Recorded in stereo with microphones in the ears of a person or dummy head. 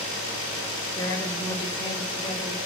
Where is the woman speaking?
20° left (ahead or behind), 7.5 m; by 2.7 s 35° left (ahead or behind), 6.5 m.